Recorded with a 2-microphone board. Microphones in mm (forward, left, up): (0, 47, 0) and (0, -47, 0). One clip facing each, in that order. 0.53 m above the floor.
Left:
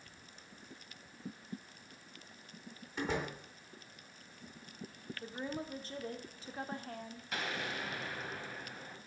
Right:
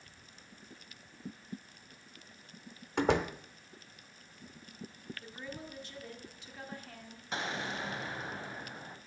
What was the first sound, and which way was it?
A door slam, 70° right (ahead or behind).